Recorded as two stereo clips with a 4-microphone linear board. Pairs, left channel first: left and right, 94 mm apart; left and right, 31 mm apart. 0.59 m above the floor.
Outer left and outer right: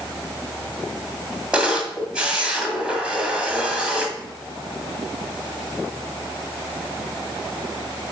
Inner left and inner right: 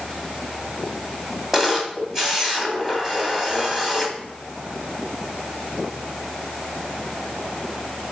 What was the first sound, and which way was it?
A camera shutter, 10° right (ahead or behind).